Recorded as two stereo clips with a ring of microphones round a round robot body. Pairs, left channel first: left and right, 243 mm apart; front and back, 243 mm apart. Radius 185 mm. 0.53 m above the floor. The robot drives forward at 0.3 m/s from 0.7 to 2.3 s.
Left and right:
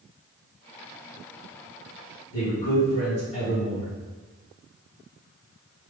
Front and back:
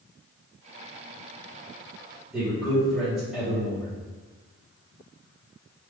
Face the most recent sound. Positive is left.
turn(degrees=90)